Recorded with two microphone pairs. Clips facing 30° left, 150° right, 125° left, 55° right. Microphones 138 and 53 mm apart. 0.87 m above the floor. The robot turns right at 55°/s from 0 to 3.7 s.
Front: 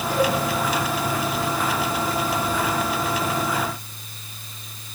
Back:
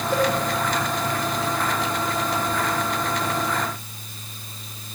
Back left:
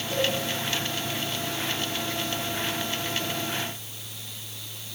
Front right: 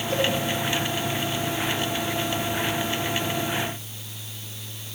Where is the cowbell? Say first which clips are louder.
Even, front right 2 dB; 45° left, 6 m; by 0.3 s 55° left, 6 m.